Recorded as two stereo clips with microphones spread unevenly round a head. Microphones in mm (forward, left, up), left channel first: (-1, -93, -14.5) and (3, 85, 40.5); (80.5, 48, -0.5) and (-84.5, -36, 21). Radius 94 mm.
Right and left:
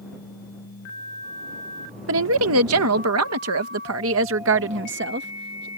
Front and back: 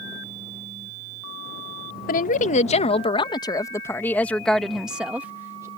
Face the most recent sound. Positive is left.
turn(degrees=130)